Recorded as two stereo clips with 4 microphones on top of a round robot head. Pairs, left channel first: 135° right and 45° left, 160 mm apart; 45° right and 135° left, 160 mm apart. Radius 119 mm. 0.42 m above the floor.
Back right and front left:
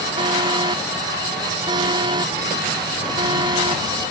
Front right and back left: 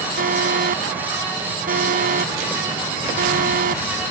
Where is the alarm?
105° left.